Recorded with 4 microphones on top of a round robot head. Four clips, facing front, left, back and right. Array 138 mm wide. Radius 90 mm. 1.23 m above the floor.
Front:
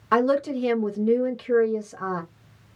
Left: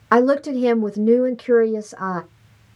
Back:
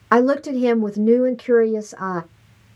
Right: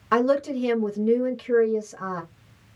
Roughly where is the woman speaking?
Behind left.